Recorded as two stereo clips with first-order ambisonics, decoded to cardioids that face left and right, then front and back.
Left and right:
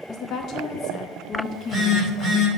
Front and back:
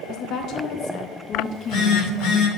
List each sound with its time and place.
0.1 s a woman speaking: 40° left, 0.7 m
1.4 s a phone buzzing: 5° right, 2.5 m